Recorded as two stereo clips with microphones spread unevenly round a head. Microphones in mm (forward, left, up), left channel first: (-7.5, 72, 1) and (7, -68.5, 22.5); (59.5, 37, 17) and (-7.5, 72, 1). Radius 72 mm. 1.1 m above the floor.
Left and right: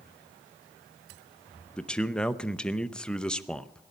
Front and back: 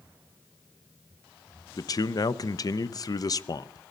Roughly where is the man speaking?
Ahead.